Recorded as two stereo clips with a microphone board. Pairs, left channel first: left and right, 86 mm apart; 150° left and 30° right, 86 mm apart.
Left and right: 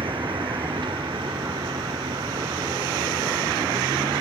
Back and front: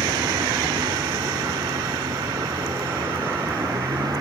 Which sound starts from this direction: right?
A vehicle, at 0.0 s.